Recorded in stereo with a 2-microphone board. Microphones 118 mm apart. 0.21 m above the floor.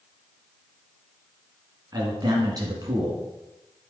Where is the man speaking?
35° right (ahead or behind), 1.9 m.